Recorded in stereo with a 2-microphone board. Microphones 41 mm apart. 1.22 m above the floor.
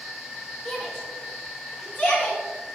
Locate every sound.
0.7 s a shout: 15° left (ahead or behind), 3 m; by 2.4 s 50° left (ahead or behind), 3.5 m